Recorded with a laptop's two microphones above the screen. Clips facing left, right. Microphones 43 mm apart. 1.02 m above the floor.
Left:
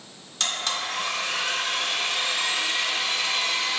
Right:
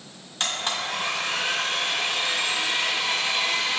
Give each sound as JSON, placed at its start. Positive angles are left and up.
{"t": 0.4, "sound": "a blender", "side_deg": -20, "distance_m": 1.3}